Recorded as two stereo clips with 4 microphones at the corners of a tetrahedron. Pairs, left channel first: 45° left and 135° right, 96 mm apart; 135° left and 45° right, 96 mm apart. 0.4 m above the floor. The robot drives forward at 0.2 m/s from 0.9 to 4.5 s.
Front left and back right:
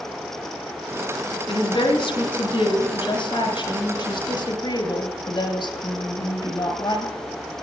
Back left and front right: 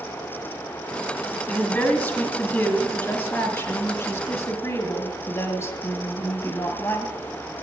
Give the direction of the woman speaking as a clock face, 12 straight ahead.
10 o'clock.